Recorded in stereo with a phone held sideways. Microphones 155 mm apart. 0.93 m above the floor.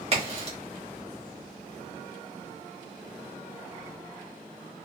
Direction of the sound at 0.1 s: 40° right (ahead or behind).